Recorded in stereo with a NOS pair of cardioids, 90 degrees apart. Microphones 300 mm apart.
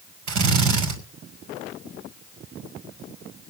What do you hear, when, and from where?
0.3 s a drill: 70° right, 5 m